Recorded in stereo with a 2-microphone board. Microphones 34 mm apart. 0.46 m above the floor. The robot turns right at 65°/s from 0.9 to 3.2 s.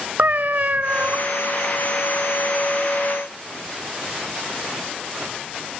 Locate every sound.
0.2 s a cat meowing: 50° right (ahead or behind), 0.6 m; by 1.2 s 60° right (ahead or behind), 0.6 m